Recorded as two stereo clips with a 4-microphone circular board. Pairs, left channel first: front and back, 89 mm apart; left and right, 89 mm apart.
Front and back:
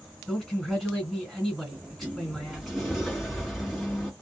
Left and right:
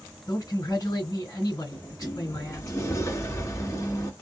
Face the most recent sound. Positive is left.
turn(degrees=90)